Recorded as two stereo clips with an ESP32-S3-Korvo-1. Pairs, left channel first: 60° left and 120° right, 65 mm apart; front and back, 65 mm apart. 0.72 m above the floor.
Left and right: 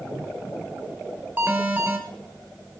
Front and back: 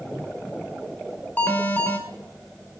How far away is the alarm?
About 2.5 m.